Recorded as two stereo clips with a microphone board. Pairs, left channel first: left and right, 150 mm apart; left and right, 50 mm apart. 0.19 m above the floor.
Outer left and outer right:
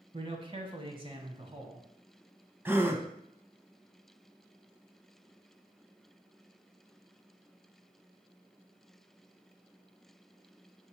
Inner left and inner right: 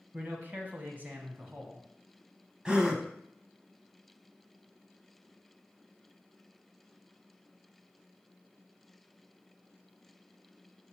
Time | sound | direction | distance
0.1 | a man speaking | 35° right (ahead or behind) | 1.4 m
2.6 | a gasp | 15° right (ahead or behind) | 0.7 m